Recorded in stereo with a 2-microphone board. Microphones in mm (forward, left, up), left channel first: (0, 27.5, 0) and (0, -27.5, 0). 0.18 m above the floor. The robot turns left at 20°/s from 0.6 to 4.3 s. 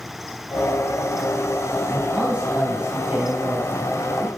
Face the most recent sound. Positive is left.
turn(degrees=-40)